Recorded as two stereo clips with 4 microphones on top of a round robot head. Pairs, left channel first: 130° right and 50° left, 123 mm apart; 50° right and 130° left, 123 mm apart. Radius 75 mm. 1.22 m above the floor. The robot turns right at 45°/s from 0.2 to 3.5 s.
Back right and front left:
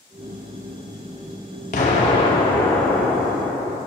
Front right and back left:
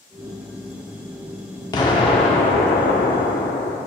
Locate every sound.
1.7 s an explosion: 105° right, 1.1 m; by 3.8 s 25° right, 1.1 m